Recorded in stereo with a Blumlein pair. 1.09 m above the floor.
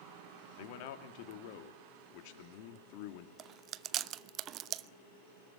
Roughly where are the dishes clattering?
No dishes clattering in this recording.